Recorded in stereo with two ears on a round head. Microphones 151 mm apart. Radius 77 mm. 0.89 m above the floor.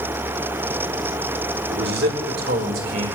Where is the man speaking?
65° right (ahead or behind), 2 m; by 3.1 s 50° right (ahead or behind), 3.5 m.